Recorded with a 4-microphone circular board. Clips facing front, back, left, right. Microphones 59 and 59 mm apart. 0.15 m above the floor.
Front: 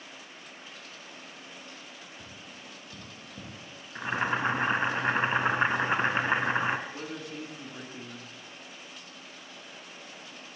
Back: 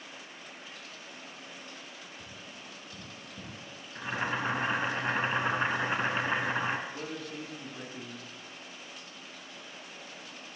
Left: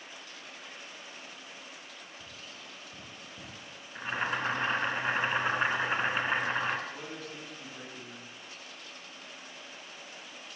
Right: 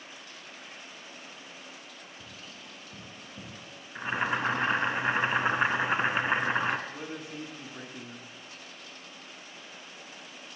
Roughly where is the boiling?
Ahead right.